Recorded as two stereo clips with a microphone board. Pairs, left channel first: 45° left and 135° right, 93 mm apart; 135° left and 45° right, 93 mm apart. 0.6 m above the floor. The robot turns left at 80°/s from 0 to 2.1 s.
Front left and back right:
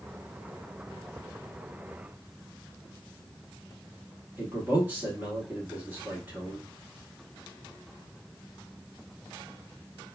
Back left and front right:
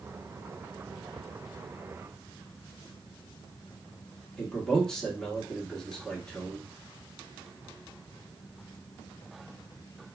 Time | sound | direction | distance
4.4 | a man speaking | 155° right | 1.1 m